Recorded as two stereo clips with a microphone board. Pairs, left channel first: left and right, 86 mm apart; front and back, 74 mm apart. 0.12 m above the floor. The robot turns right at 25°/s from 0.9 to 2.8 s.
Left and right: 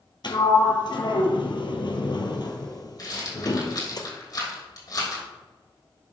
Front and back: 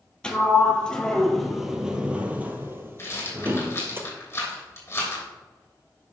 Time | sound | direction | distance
0.2 | a sliding door | 75° left | 1.0 m
3.0 | a rattle | 50° left | 3 m